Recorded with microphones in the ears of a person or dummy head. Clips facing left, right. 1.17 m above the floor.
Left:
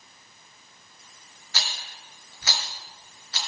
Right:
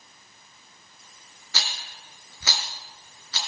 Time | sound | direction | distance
1.5 | a rattle | 75° right (ahead or behind) | 3.5 m